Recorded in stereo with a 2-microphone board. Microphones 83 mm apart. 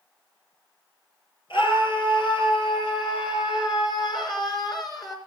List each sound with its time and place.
1.5 s a scream: 80° left, 7 m; by 5.2 s 45° left (ahead or behind), 4.5 m